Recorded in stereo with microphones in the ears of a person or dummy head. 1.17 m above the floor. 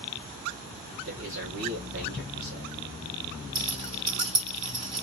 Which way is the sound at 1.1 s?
55° right (ahead or behind).